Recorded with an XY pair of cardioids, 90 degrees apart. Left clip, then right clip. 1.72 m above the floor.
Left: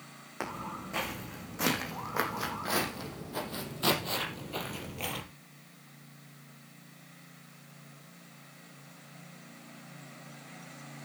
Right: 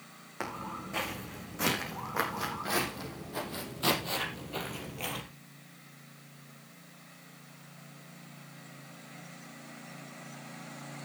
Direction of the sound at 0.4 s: 15° left.